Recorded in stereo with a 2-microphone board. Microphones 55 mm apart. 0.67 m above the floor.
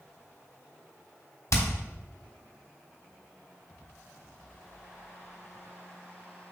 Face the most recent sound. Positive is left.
turn(degrees=85)